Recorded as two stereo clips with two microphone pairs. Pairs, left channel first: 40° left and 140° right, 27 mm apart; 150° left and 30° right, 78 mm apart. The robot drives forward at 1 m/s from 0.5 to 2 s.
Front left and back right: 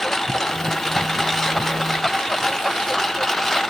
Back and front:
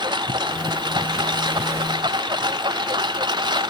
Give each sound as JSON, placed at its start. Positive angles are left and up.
{"t": 0.0, "sound": "a lawn mower", "azimuth_deg": -45}